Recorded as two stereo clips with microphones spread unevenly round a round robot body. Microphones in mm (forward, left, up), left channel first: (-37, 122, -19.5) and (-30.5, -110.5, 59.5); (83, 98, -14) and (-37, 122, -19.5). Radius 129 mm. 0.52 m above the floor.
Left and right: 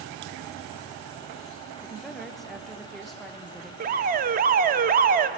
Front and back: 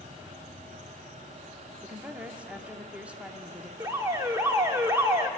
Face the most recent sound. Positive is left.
turn(degrees=-145)